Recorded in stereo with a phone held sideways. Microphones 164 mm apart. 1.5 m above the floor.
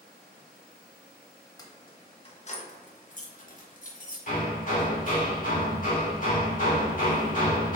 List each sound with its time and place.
1.6 s keys jangling: 25° left (ahead or behind), 1.0 m; by 4.2 s 50° left (ahead or behind), 1.3 m
4.3 s hammering: 55° left (ahead or behind), 2 m